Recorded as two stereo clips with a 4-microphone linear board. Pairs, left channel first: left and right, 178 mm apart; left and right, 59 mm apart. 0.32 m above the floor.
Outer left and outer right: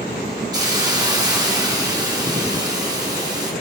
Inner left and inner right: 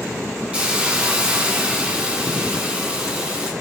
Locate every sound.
0.5 s a hiss: 20° right (ahead or behind), 1.1 m